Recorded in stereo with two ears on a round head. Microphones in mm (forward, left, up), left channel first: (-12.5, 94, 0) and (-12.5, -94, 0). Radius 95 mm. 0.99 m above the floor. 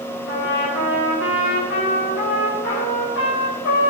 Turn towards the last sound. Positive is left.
turn(degrees=65)  # may be behind; listen again after turning